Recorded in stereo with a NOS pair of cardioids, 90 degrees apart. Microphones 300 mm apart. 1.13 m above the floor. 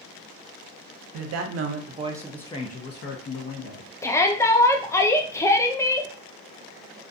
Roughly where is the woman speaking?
Ahead right.